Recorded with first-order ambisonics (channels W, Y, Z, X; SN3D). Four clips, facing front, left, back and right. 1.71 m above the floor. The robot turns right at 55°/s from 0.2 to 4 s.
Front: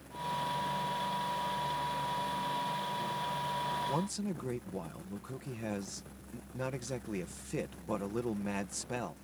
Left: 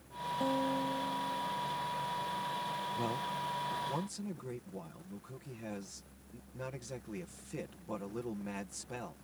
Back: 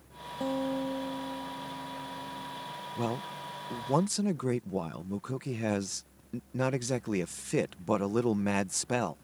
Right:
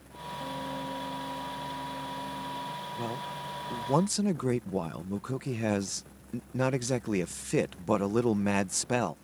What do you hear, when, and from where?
0.4 s a guitar: 150° left; by 2.7 s 80° right
3.0 s a man speaking: straight behind; by 9.1 s 120° right